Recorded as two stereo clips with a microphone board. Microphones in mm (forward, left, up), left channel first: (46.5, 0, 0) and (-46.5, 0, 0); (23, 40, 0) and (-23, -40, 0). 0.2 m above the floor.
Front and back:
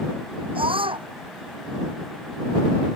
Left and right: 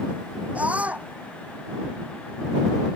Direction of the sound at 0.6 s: 165° left.